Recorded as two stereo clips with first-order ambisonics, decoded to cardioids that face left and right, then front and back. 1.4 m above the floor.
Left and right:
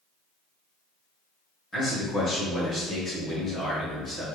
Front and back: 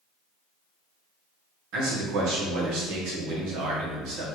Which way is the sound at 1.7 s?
165° left.